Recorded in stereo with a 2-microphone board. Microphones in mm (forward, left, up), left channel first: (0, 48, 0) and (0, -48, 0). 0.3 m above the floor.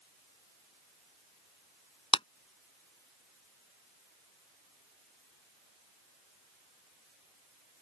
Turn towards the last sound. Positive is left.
turn(degrees=70)  # may be behind; listen again after turning